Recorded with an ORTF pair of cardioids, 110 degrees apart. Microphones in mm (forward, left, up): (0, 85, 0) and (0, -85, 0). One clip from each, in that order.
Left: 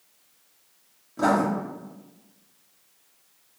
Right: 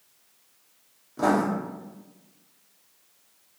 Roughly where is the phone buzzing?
I don't hear a phone buzzing.